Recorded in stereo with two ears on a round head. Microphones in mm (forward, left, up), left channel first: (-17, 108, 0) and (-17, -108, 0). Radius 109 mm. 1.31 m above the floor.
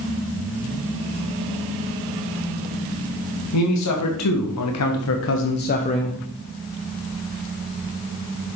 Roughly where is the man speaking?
Left.